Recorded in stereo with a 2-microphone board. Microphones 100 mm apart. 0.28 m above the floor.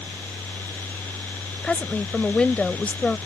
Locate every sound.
1.6 s a woman speaking: 10° left (ahead or behind)